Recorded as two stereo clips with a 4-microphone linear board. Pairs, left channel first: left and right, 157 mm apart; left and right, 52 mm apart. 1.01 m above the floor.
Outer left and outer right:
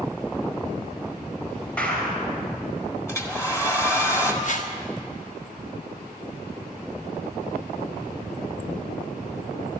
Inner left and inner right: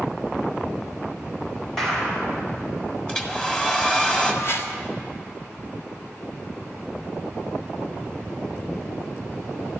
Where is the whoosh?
55° left (ahead or behind), 1.3 m.